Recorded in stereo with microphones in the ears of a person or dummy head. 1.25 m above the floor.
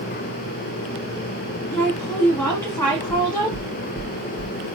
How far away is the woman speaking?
About 2.0 m.